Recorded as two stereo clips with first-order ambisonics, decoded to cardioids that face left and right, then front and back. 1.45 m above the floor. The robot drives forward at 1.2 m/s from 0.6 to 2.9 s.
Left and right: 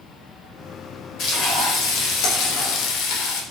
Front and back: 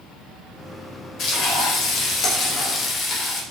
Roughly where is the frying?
Ahead left.